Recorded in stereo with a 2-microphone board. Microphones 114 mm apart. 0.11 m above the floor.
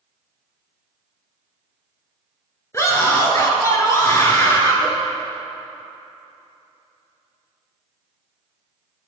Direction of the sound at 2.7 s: 25° left (ahead or behind).